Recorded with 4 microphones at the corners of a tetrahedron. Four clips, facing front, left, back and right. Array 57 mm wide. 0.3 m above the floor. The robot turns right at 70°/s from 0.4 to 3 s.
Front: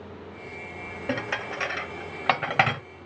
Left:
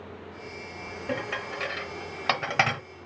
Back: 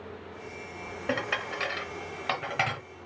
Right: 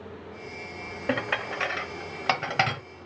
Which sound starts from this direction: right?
Dishes clattering, at 1.1 s.